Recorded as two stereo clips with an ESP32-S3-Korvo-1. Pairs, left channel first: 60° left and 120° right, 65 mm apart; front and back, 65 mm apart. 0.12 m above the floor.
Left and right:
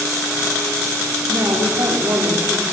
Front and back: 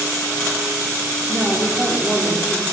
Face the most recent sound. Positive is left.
turn(degrees=-120)